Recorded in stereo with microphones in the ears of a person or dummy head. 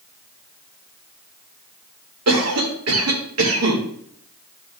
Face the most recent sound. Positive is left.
turn(degrees=-80)